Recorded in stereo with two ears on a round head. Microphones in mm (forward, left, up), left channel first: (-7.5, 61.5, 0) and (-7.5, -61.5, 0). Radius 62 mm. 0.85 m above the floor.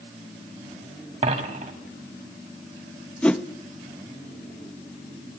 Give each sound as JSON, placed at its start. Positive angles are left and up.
{"t": 1.2, "sound": "a dropped coin", "side_deg": -55, "distance_m": 2.5}
{"t": 3.2, "sound": "a whoosh", "side_deg": 10, "distance_m": 0.9}